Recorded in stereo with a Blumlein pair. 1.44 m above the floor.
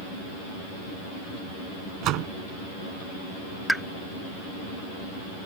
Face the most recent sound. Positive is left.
turn(degrees=0)